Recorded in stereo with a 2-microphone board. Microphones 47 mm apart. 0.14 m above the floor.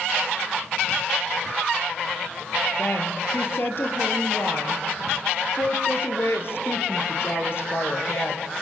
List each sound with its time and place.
2.8 s a woman speaking: 55° left (ahead or behind), 3.5 m